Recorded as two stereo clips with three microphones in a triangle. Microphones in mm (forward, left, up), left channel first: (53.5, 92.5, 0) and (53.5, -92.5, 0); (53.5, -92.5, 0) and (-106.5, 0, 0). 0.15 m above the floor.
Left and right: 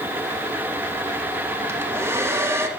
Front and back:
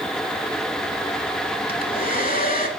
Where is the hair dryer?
15° right, 0.6 m.